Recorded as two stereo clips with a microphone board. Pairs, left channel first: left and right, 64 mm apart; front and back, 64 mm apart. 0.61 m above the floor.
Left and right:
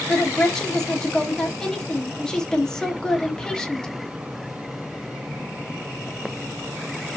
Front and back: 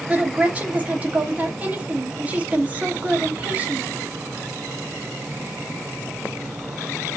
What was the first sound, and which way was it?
A woman speaking, 155° left.